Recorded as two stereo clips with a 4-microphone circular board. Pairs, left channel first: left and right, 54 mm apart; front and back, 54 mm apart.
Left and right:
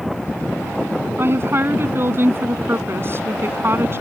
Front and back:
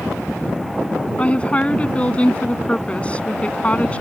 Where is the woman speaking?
65° right.